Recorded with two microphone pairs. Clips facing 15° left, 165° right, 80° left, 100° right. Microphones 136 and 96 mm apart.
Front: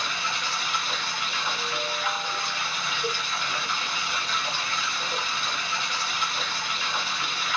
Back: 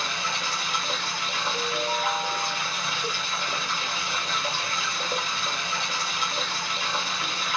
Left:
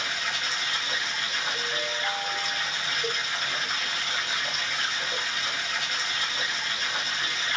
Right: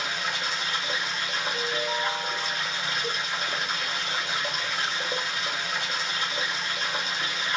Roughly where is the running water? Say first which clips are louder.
Back 1 dB, right 2 dB; behind right.